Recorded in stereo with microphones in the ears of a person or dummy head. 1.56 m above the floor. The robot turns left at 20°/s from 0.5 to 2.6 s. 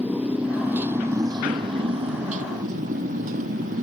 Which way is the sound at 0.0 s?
5° right.